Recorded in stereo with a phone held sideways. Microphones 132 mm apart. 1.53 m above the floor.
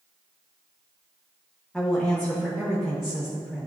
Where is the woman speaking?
5° left (ahead or behind), 1.6 m.